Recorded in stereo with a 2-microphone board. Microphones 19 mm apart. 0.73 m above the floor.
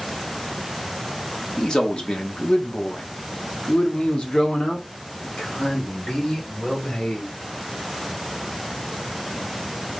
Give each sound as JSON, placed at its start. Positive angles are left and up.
{"t": 1.6, "sound": "a man speaking", "side_deg": 40, "distance_m": 1.4}